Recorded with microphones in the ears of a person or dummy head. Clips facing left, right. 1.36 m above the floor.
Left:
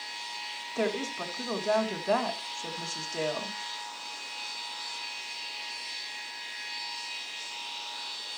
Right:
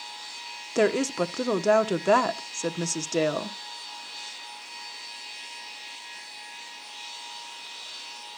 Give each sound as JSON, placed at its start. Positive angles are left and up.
{"t": 0.8, "sound": "a woman speaking", "side_deg": -65, "distance_m": 1.1}